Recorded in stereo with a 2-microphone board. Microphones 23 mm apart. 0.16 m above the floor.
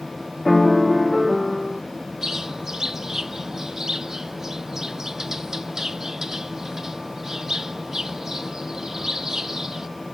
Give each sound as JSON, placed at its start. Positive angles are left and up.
{"t": 0.5, "sound": "a piano", "side_deg": 15}
{"t": 2.2, "sound": "a bird", "side_deg": -25}